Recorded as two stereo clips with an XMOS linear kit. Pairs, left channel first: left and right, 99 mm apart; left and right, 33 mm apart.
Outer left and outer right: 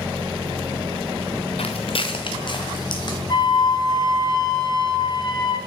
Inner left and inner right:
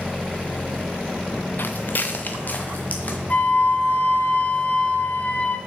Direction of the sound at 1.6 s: 75° left (ahead or behind).